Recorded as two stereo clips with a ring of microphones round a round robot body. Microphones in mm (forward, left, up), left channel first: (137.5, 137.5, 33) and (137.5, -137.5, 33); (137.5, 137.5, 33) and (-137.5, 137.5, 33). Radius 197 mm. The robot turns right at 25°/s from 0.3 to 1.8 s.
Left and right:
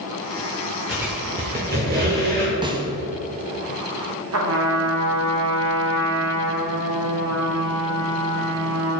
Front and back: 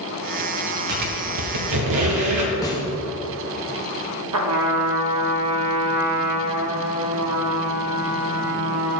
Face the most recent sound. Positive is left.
turn(degrees=-140)